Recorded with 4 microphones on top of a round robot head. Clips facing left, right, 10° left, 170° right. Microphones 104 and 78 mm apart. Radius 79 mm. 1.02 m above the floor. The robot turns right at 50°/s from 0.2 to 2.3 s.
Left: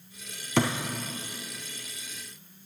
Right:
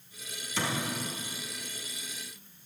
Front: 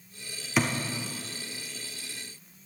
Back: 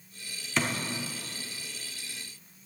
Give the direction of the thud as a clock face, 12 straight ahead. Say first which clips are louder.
Left 8 dB, front 3 dB; 9 o'clock.